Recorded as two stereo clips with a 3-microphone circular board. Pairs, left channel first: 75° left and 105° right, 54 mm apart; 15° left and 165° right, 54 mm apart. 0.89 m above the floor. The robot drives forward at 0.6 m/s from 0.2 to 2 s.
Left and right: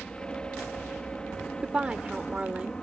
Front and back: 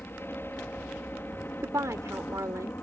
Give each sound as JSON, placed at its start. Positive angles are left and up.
{"t": 0.0, "sound": "a helicopter", "azimuth_deg": 10}
{"t": 1.6, "sound": "a woman speaking", "azimuth_deg": -175}